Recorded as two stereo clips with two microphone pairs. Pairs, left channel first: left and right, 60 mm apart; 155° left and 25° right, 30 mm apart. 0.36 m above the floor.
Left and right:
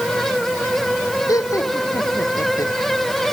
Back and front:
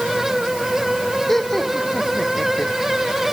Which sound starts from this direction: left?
Laughter, at 1.3 s.